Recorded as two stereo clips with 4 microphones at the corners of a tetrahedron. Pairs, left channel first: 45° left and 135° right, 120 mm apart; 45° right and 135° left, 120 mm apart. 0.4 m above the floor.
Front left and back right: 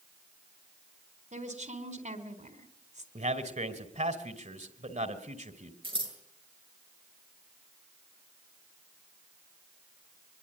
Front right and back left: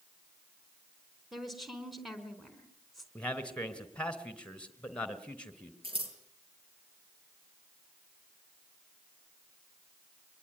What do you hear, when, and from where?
1.3 s a woman speaking: 135° right, 4 m
3.1 s a man speaking: 125° right, 3 m
5.8 s scissors: straight behind, 7 m